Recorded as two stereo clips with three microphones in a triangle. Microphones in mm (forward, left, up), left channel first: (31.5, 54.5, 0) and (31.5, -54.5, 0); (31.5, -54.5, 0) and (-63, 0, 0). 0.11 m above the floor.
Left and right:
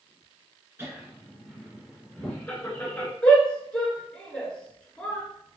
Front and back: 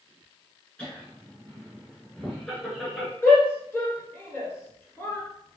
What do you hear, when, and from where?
0.8 s laughter: 90° right, 1.5 m; by 3.1 s 60° left, 1.6 m
3.2 s a shout: 20° left, 1.5 m